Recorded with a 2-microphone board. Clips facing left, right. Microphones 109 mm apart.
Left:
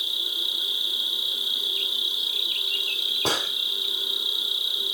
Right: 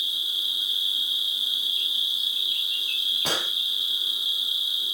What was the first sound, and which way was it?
An insect, 55° left (ahead or behind).